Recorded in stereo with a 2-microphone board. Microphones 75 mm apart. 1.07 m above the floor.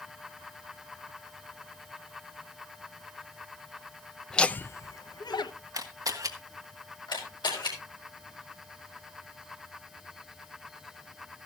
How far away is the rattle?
I don't hear a rattle.